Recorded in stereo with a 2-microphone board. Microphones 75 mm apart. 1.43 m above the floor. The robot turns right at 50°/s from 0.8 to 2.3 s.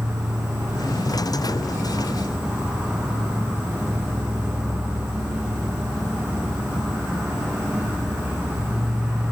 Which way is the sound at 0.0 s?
95° right.